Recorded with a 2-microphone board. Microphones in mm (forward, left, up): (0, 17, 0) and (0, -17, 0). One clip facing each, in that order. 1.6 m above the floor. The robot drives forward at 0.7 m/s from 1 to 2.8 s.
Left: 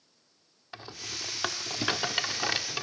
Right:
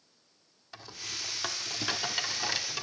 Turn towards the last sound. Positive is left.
turn(degrees=20)  # may be behind; listen again after turning